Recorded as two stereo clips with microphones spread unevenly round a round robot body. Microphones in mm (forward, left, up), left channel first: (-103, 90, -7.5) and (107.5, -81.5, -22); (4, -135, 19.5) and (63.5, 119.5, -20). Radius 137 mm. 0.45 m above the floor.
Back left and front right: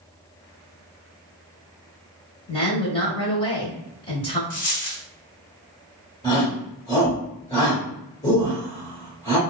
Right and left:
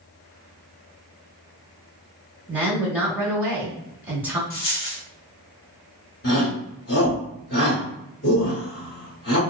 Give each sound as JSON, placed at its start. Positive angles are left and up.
{"t": 2.5, "sound": "a woman speaking", "azimuth_deg": 110, "distance_m": 1.0}
{"t": 4.5, "sound": "a dropped coin", "azimuth_deg": -160, "distance_m": 0.7}
{"t": 6.2, "sound": "a shout", "azimuth_deg": -145, "distance_m": 1.6}